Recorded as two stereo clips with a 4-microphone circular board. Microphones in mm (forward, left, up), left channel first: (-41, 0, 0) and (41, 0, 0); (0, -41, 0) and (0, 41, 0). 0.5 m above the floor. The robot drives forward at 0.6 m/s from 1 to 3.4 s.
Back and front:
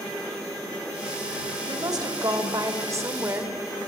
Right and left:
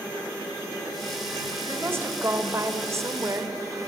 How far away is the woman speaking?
About 2.5 m.